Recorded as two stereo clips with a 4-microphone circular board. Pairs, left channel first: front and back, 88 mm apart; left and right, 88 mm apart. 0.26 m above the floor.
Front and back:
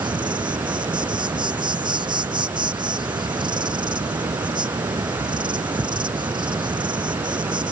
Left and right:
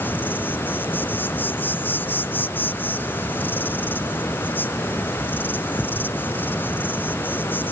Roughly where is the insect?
Behind left.